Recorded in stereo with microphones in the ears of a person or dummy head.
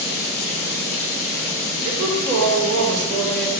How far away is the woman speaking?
About 4.5 m.